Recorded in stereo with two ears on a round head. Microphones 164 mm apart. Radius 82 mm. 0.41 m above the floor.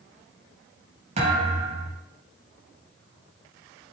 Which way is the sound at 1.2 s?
35° right (ahead or behind).